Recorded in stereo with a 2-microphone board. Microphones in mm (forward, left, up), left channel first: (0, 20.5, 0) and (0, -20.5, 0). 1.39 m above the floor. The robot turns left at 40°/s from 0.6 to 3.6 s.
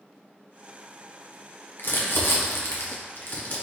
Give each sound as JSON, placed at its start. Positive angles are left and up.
{"t": 1.8, "sound": "crumpling", "side_deg": 60, "distance_m": 1.0}